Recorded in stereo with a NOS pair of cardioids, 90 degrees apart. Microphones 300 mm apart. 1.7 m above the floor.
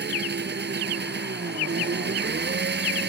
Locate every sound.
0.0 s an engine running: 35° right